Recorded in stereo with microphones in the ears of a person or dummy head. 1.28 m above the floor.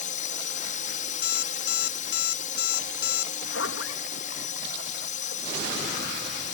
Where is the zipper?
80° left.